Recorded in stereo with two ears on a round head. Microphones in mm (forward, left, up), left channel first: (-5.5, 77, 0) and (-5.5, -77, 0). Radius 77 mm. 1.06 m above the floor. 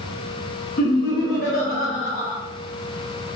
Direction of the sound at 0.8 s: 55° left (ahead or behind).